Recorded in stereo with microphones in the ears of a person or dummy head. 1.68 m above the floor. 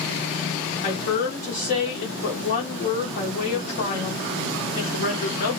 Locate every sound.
0.8 s a woman speaking: 45° left (ahead or behind), 0.8 m